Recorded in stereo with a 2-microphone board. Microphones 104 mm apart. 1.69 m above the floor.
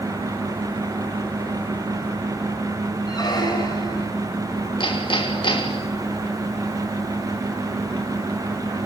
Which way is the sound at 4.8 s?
50° left (ahead or behind).